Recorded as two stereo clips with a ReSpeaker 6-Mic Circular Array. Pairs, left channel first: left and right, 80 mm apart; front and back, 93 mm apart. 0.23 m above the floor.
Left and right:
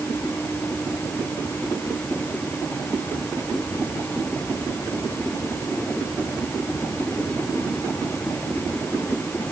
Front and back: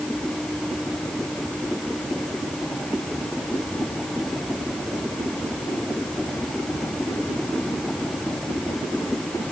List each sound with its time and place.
Only background noise.